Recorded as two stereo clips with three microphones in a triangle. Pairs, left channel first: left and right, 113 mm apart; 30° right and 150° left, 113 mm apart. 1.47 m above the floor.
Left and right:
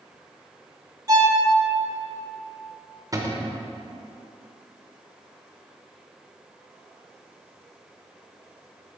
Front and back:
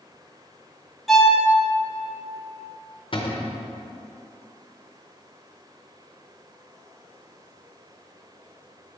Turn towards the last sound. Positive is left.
turn(degrees=-40)